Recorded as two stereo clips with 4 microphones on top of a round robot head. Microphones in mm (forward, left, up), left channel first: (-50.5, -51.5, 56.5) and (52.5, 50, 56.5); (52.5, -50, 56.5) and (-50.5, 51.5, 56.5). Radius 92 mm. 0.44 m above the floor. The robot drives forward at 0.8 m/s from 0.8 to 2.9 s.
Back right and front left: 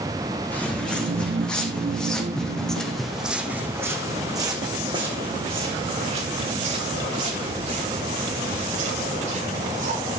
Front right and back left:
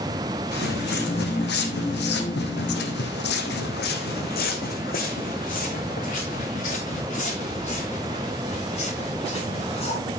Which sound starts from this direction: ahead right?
Footsteps, at 0.5 s.